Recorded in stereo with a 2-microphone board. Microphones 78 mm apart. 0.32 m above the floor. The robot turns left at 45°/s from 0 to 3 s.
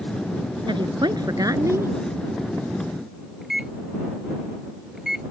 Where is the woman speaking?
95° right; by 1.9 s 150° right.